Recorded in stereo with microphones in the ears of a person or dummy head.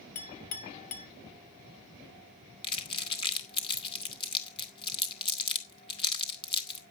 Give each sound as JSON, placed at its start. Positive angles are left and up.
{"t": 0.1, "sound": "a clink", "side_deg": 40, "distance_m": 2.0}
{"t": 2.6, "sound": "crumpling", "side_deg": 30, "distance_m": 2.5}